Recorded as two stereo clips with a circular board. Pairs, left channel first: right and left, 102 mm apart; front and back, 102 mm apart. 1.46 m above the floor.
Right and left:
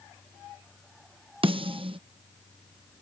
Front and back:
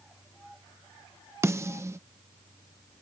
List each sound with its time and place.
1.4 s a snare drum: 120° left